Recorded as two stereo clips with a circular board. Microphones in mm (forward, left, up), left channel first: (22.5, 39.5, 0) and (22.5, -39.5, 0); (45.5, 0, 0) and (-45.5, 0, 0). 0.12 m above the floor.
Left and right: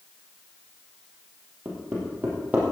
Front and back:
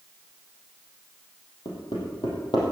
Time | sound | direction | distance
1.6 | hammering | 20° right | 4.5 m